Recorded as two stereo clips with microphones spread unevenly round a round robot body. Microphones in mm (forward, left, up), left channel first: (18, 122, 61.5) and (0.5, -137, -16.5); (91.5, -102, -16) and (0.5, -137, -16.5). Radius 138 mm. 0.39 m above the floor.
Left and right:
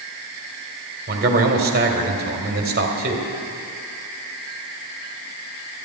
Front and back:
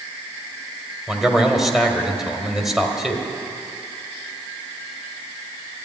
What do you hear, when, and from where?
1.1 s a man speaking: 75° right, 1.9 m